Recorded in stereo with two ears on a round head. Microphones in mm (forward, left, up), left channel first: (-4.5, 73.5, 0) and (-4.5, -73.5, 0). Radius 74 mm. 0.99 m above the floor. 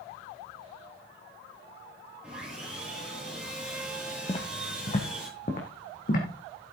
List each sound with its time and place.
2.2 s sawing: 5° right (ahead or behind), 8.5 m
4.3 s footsteps: 30° left (ahead or behind), 2 m; by 6.3 s 50° left (ahead or behind), 3.5 m